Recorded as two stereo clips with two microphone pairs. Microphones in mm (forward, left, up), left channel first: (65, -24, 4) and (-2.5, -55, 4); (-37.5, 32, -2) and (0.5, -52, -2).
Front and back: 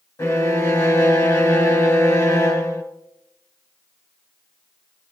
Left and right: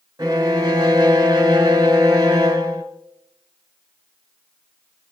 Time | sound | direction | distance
0.2 | a violin | 15° right | 1.4 m